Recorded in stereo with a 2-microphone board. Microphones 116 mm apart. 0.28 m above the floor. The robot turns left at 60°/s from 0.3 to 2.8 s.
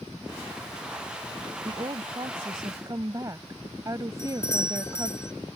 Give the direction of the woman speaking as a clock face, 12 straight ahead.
2 o'clock.